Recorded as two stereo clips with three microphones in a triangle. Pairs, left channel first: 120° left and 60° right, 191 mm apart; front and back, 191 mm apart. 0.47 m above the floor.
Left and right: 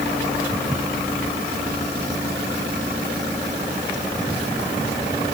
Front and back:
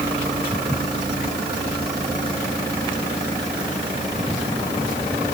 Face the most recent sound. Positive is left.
No sound to turn to.